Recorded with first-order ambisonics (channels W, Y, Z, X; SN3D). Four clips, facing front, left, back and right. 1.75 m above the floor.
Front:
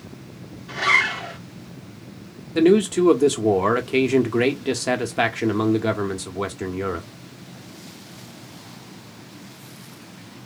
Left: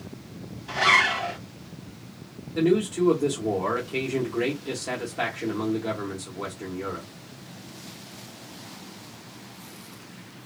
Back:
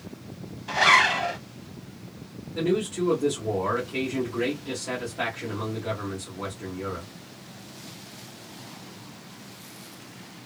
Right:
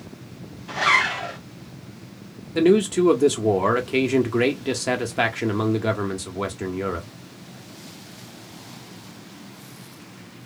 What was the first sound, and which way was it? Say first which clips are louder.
A zipper: even, back 1 dB; straight behind.